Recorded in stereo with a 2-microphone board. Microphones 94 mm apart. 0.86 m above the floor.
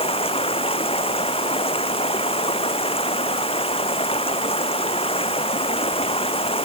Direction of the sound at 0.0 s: 90° left.